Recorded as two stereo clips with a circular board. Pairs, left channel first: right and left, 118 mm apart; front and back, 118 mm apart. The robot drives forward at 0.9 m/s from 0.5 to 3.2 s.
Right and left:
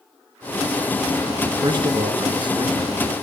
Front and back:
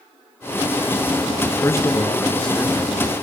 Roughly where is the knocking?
No knocking in this recording.